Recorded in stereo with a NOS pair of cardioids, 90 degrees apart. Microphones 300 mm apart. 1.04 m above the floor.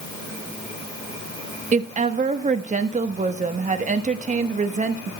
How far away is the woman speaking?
About 1.2 m.